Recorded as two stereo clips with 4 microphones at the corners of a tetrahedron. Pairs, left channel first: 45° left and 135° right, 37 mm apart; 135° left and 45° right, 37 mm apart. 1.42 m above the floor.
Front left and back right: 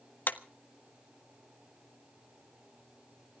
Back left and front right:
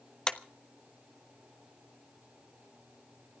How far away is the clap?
About 1.1 m.